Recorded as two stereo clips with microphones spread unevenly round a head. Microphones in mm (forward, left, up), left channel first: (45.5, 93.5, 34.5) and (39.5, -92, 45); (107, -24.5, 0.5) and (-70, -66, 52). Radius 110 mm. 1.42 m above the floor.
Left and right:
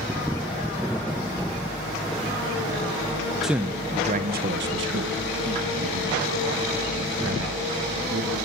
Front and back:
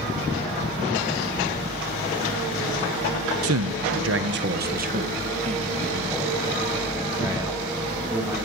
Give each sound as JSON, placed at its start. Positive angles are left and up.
{"t": 3.4, "sound": "a man speaking", "azimuth_deg": 180, "distance_m": 1.3}